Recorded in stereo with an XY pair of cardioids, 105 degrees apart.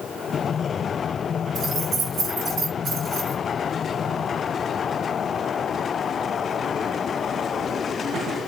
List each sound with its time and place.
1.6 s keys jangling: 45° right, 2.5 m